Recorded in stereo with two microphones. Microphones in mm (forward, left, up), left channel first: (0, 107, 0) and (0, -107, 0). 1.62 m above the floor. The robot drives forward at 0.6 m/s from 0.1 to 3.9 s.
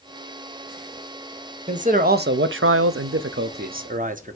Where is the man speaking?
35° right (ahead or behind), 0.9 m; by 4.4 s 40° right (ahead or behind), 0.8 m.